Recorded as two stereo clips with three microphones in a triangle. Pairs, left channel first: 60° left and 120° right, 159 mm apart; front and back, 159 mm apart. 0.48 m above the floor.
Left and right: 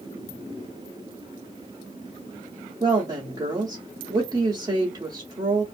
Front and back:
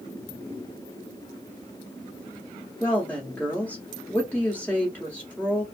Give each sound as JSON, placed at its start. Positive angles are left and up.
{"t": 2.8, "sound": "a woman speaking", "azimuth_deg": -70, "distance_m": 0.8}